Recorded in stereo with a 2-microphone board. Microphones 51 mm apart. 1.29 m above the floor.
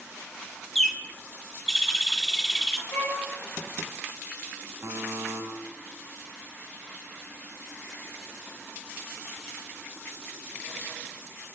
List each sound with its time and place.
0.8 s a bird: 5° left (ahead or behind), 1.5 m
2.9 s a violin: 45° left (ahead or behind), 5 m
4.8 s a buzzer: 60° right (ahead or behind), 3 m